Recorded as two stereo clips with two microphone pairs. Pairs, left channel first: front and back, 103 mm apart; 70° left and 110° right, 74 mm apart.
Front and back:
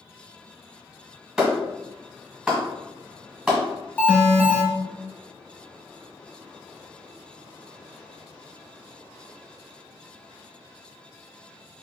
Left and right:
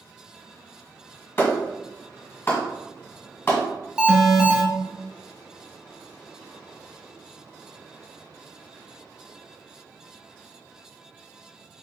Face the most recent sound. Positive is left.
turn(degrees=-60)